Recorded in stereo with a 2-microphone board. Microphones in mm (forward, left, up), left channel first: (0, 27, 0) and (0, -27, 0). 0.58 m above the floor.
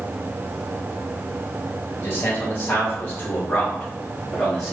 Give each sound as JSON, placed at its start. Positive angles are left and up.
{"t": 2.0, "sound": "a man speaking", "side_deg": 40, "distance_m": 1.5}